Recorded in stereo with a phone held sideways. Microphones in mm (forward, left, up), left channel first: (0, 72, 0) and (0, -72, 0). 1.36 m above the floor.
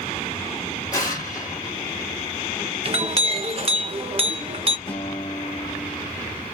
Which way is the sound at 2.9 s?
45° right (ahead or behind).